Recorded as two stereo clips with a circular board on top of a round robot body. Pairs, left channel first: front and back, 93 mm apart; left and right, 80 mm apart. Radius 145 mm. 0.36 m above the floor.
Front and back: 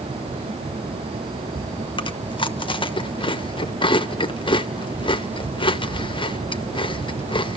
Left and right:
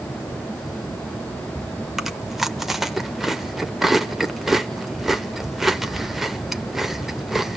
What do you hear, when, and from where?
2.0 s chewing: straight ahead, 1.1 m